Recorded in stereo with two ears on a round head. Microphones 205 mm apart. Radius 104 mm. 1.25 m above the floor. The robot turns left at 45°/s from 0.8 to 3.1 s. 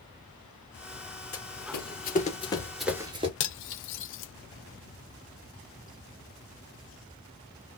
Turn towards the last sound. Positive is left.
turn(degrees=55)  # may be behind; listen again after turning